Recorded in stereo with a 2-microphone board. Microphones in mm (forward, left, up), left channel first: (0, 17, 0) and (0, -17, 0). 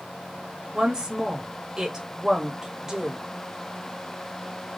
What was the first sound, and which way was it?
A woman speaking, 20° right (ahead or behind).